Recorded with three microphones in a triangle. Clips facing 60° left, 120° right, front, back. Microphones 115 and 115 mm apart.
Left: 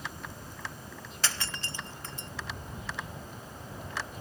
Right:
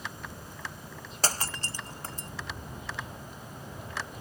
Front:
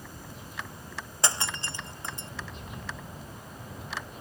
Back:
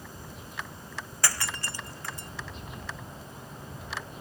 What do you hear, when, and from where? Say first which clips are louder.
1.2 s breaking glass: right 4 dB, front 2 dB; 65° right